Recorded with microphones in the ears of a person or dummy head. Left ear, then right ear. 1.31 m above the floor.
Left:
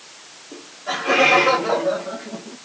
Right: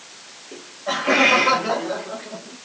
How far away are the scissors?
No scissors in this recording.